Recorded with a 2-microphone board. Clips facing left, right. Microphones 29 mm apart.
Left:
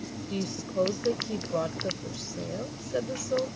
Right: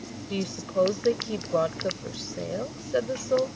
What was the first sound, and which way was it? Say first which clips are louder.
A woman speaking: right 4 dB; 30° right (ahead or behind).